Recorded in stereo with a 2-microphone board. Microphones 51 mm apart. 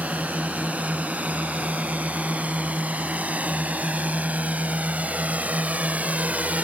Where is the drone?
35° right (ahead or behind).